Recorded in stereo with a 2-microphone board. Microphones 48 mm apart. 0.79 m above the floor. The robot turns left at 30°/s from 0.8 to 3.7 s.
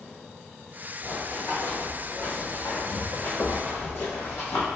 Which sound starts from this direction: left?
Running footsteps, at 1.0 s.